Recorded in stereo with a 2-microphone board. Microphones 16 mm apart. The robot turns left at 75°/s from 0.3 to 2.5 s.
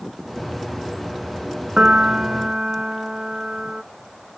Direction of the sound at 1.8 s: 90° right.